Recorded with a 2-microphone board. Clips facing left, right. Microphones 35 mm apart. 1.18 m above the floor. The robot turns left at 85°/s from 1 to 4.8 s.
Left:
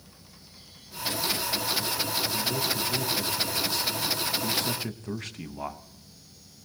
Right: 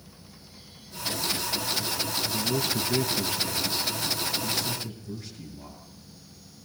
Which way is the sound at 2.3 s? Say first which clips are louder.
Right 1 dB; 35° right.